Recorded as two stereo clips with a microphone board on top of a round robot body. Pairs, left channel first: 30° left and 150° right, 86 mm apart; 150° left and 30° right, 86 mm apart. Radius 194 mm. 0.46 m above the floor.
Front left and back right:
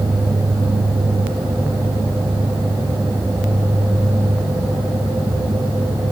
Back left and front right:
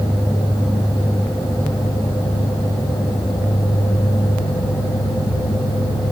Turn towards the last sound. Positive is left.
No sound to turn to.